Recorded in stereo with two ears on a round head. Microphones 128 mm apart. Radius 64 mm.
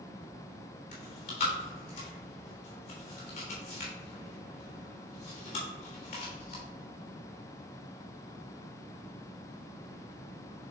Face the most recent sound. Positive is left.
turn(degrees=60)  # may be behind; listen again after turning